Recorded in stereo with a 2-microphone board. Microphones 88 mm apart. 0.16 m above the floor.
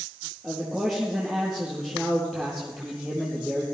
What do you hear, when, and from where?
0.4 s a man speaking: centre (ahead or behind), 4.5 m